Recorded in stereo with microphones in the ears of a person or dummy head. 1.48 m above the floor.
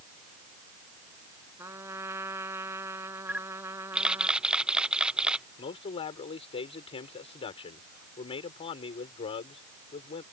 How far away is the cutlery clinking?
I don't hear cutlery clinking.